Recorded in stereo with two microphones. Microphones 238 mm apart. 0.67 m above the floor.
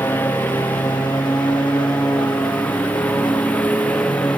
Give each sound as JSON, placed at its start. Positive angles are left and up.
{"t": 0.0, "sound": "a lawn mower", "side_deg": 10}